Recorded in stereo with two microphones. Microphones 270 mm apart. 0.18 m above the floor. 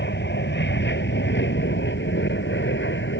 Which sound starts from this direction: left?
An aircraft, at 0.0 s.